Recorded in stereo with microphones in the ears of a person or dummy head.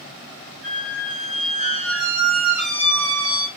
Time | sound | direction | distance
0.6 | a squeak | 5° right (ahead or behind) | 1.9 m